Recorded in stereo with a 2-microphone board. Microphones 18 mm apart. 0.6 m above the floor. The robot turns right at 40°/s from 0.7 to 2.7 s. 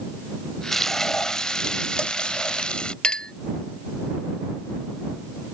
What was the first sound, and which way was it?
Frying, 15° left.